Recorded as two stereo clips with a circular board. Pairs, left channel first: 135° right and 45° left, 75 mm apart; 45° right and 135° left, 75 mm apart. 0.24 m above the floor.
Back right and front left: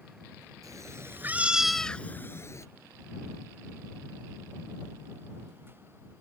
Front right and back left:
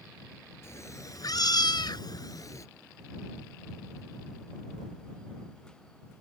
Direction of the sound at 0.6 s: 5° left.